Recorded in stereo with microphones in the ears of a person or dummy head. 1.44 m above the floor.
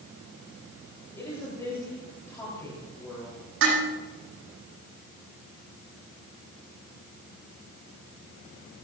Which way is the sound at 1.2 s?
15° left (ahead or behind).